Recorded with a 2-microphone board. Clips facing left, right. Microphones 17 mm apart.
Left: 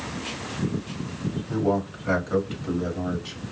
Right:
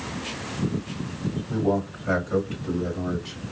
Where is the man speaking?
40° left (ahead or behind), 1.7 m; by 3.5 s 25° left (ahead or behind), 1.4 m.